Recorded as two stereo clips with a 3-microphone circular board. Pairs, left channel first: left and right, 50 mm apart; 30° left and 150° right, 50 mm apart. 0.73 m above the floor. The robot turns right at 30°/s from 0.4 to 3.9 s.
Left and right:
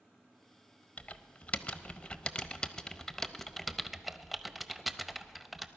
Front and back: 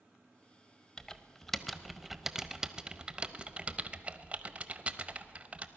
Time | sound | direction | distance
1.0 | typing on a keyboard | 95° left | 0.5 m